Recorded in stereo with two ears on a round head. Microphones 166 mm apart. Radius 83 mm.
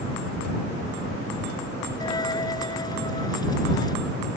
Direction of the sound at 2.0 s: 20° left (ahead or behind).